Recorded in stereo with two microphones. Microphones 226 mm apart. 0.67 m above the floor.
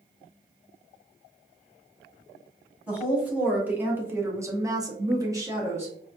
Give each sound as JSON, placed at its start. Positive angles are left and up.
{"t": 2.9, "sound": "a woman speaking", "side_deg": -5, "distance_m": 1.4}